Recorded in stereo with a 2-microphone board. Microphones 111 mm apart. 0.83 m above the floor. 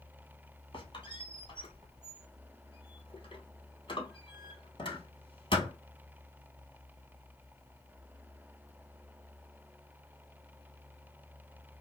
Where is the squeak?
45° left (ahead or behind), 1.1 m.